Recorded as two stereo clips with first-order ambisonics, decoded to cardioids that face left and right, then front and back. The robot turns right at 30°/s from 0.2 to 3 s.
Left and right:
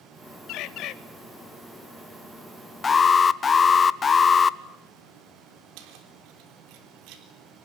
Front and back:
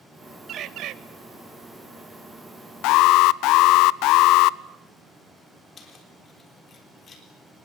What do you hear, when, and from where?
0.5 s a bird: 125° left, 0.9 m; by 0.9 s 135° left, 0.9 m
2.8 s an alarm: 20° left, 0.6 m; by 4.6 s 25° left, 0.6 m
5.8 s keys jangling: 65° right, 3.5 m